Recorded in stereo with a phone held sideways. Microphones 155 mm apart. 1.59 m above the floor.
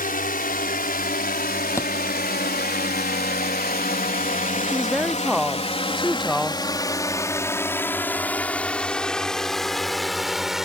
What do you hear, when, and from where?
0.0 s a drone: 65° left (ahead or behind); by 10.7 s centre (ahead or behind)
1.8 s a thud: 20° left (ahead or behind)
4.7 s a woman speaking: centre (ahead or behind)